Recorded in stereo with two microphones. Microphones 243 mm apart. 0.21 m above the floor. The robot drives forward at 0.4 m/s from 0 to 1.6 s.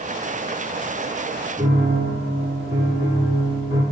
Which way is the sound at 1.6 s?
40° right (ahead or behind).